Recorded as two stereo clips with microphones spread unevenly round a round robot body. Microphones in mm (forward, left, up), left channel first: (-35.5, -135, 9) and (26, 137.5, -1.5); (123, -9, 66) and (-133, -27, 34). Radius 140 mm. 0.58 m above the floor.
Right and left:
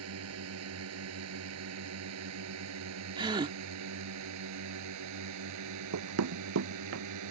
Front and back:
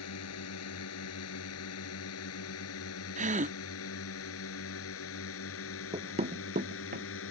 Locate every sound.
0.0 s a drone: 40° left; by 7.3 s 50° left
3.2 s a gasp: 145° left
5.9 s running footsteps: 110° left; by 7.0 s 125° left